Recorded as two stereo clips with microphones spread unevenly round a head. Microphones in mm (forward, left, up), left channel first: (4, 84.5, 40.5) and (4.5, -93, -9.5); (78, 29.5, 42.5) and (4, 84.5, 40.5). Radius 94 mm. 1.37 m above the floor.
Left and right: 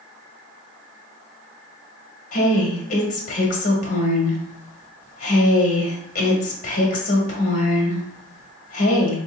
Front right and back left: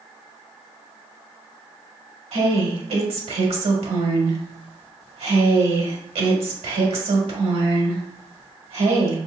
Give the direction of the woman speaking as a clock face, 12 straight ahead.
7 o'clock.